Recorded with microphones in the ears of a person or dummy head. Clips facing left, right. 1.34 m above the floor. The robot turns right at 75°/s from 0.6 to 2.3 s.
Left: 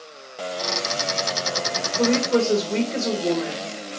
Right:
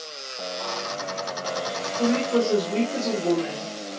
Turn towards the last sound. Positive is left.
turn(degrees=20)  # may be behind; listen again after turning